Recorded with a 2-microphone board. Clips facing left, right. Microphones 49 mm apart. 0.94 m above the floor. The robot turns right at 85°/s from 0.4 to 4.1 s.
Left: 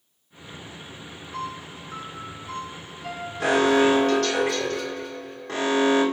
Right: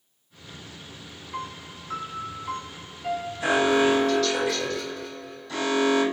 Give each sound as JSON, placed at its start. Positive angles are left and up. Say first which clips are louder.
{"t": 1.3, "sound": "a piano", "louder": "left 2 dB", "azimuth_deg": -155, "distance_m": 1.0}
{"t": 3.4, "sound": "an alarm", "louder": "left 2 dB", "azimuth_deg": 65, "distance_m": 3.0}